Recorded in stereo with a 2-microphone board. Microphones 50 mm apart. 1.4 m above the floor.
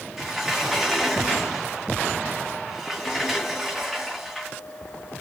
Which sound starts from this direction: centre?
A sliding door, at 0.2 s.